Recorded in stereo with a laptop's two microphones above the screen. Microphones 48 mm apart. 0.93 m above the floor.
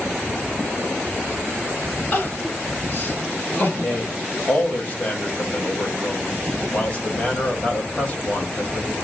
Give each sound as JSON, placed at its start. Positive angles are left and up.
{"t": 2.1, "sound": "crying", "side_deg": 45, "distance_m": 2.5}
{"t": 3.7, "sound": "a man speaking", "side_deg": 35, "distance_m": 1.5}